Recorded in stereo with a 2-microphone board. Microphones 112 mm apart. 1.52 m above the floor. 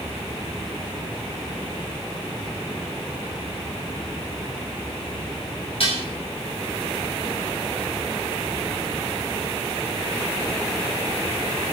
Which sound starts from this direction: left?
Dishes clattering, at 5.8 s.